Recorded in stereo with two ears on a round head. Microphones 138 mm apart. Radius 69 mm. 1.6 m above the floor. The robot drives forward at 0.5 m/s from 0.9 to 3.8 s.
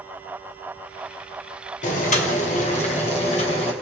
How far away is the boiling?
About 2.0 m.